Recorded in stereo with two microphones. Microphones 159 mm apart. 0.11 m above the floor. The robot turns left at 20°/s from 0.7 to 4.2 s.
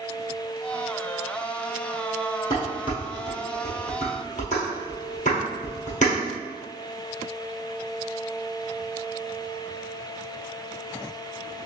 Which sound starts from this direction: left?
Dishes clattering, at 2.5 s.